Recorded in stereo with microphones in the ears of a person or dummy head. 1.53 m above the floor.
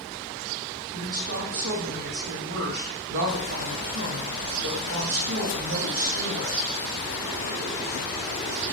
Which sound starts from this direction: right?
A woman speaking, at 0.9 s.